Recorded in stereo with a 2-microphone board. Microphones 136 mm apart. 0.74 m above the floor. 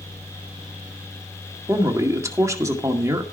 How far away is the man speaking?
About 2.0 m.